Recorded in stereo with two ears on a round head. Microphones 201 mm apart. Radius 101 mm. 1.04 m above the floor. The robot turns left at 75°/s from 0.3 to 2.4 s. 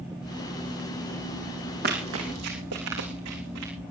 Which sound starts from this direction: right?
Running footsteps, at 1.8 s.